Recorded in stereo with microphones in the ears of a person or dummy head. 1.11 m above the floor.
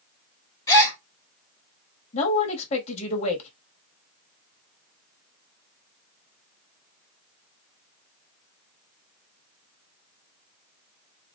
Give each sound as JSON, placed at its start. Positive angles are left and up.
{"t": 0.7, "sound": "a gasp", "side_deg": 25, "distance_m": 1.5}
{"t": 2.1, "sound": "a man speaking", "side_deg": 45, "distance_m": 1.5}